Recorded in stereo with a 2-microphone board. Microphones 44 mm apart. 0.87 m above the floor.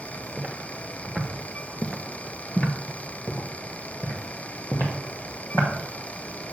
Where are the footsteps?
30° right (ahead or behind), 1.1 m; by 5.7 s 65° left (ahead or behind), 2.5 m.